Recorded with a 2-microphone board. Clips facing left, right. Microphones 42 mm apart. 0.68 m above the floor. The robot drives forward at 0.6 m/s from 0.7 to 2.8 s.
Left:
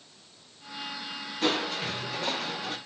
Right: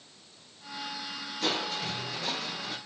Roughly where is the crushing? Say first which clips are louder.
Left 3 dB; left.